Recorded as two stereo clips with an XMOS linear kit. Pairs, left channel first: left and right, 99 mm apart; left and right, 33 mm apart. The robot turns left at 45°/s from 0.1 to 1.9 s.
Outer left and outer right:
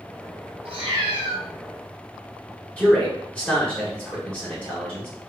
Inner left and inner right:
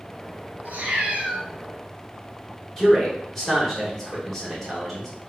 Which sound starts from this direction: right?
A cat meowing, at 0.7 s.